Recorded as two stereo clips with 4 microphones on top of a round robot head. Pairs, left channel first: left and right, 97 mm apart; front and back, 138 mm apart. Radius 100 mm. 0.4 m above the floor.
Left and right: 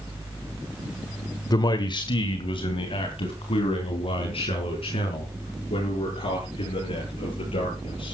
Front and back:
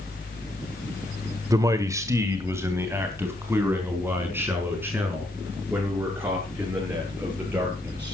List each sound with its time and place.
1.5 s a man speaking: 120° left, 1.4 m; by 8.1 s 100° left, 8.5 m